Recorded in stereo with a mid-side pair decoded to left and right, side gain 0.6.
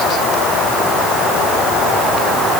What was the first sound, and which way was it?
Only background noise.